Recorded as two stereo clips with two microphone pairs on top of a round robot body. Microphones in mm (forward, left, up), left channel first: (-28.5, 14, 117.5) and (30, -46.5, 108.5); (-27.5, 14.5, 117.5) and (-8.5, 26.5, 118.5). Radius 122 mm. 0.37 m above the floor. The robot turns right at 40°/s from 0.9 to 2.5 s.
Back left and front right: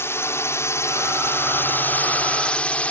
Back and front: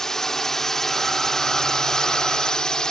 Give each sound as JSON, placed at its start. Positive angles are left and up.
{"t": 0.0, "sound": "a drone", "azimuth_deg": 175}